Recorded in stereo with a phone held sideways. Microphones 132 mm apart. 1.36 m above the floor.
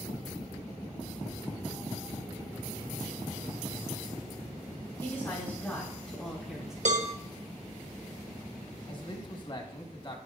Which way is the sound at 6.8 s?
60° right (ahead or behind).